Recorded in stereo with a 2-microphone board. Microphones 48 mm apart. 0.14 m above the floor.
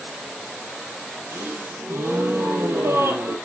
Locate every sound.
1.3 s a gasp: 65° right (ahead or behind), 1.2 m